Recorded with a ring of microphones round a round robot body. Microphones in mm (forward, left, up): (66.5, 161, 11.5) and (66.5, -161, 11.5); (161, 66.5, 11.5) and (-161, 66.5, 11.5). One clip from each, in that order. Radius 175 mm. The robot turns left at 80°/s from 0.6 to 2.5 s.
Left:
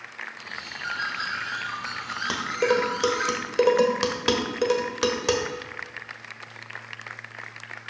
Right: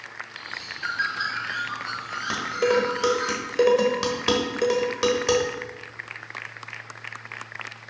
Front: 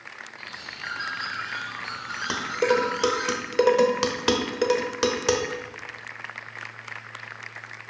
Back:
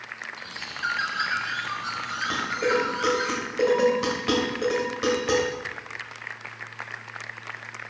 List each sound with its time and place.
0.4 s a bird: 140° right, 2.5 m; by 3.3 s 65° left, 2.5 m
2.3 s dishes clattering: 30° left, 1.2 m; by 5.5 s 15° left, 1.2 m